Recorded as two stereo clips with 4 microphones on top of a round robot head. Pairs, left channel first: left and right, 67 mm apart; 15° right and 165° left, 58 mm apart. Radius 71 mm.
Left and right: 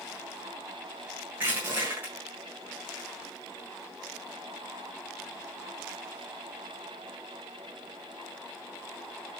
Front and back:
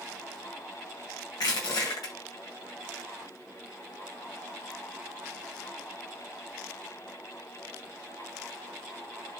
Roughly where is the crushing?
Ahead.